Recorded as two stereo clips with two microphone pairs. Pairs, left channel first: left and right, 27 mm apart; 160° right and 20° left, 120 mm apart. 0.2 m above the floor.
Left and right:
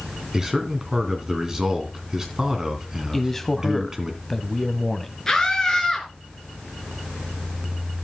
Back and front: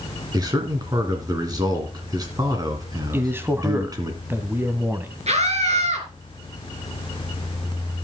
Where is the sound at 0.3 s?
25° right, 2.5 m.